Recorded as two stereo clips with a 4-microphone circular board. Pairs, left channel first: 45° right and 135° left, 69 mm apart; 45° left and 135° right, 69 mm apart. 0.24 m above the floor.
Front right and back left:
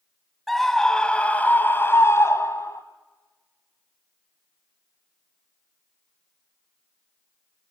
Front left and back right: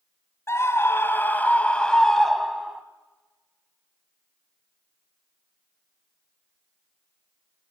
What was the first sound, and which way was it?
A scream, 45° left.